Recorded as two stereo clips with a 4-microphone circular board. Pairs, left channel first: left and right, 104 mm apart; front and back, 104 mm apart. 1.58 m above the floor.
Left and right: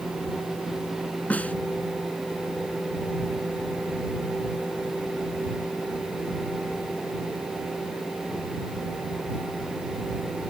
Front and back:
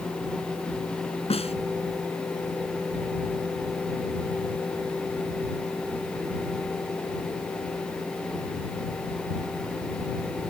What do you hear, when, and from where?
1.3 s a snare drum: 15° left